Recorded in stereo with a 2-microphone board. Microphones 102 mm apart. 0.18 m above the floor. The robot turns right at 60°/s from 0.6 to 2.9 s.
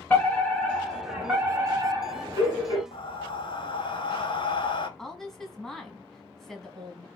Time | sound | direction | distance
0.1 | a fire alarm | 165° left | 3 m
2.9 | breathing | 55° left (ahead or behind) | 0.6 m
5.0 | a woman speaking | 5° left (ahead or behind) | 1.1 m